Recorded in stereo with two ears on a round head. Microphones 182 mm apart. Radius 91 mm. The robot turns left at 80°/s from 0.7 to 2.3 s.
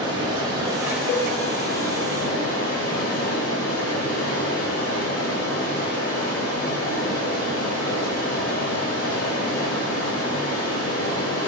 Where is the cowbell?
45° left (ahead or behind), 0.9 m; by 1.3 s 55° left (ahead or behind), 0.9 m.